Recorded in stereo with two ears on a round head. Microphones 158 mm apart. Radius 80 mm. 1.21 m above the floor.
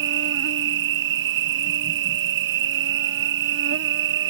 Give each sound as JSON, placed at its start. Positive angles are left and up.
{"t": 0.0, "sound": "an insect", "side_deg": -70}